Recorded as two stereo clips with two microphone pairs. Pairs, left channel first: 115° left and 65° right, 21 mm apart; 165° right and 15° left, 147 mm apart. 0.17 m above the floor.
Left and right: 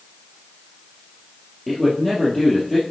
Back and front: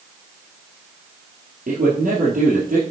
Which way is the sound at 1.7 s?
15° left.